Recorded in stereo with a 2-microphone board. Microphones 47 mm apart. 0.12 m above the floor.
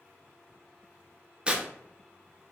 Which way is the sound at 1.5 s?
25° right (ahead or behind).